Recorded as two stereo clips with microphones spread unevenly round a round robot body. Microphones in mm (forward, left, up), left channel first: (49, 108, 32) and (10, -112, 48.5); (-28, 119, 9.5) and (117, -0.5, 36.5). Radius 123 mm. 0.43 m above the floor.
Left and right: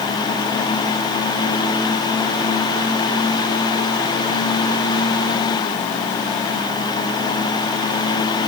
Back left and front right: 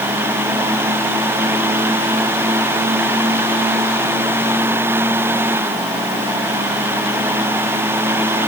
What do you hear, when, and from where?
Only background noise.